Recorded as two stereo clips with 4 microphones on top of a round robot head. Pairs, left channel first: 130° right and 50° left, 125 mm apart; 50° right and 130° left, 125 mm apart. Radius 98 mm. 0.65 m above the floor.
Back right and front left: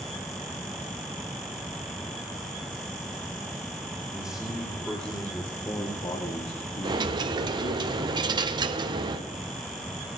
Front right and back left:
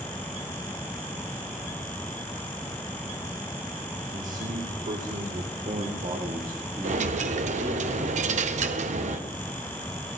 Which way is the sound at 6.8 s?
105° left.